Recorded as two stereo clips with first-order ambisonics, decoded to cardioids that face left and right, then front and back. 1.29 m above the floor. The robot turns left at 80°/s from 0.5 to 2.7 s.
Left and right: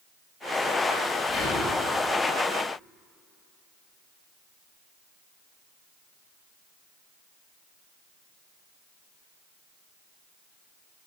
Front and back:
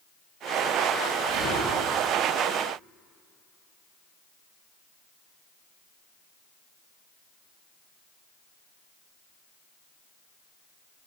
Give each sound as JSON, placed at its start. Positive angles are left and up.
{"t": 1.3, "sound": "whispering", "azimuth_deg": 165, "distance_m": 3.0}